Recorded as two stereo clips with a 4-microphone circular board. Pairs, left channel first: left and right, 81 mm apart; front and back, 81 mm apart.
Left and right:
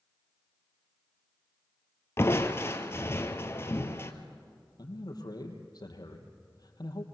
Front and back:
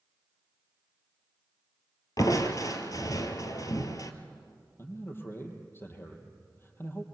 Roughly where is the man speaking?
Ahead left.